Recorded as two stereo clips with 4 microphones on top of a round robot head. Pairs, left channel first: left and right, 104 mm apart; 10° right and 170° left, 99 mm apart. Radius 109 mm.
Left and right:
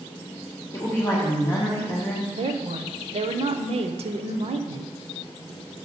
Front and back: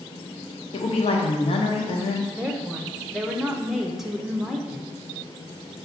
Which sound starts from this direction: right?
A woman speaking, at 2.3 s.